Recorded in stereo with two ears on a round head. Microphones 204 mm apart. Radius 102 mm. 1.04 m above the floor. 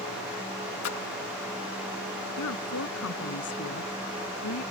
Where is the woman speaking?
70° left (ahead or behind).